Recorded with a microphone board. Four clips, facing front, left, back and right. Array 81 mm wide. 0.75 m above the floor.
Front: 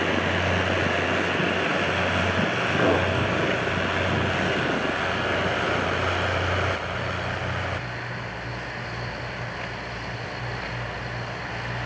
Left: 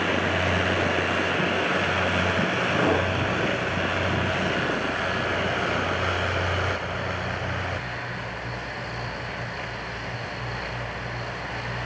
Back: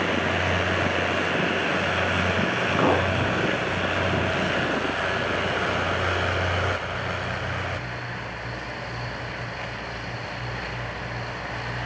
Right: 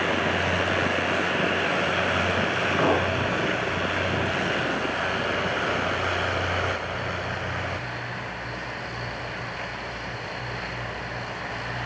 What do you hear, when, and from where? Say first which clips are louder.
2.8 s a clink: right 1 dB, even; 150° right, 6 m